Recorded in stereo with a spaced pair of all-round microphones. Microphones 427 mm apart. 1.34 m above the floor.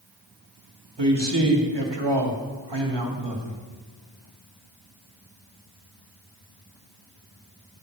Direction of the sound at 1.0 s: 70° right (ahead or behind).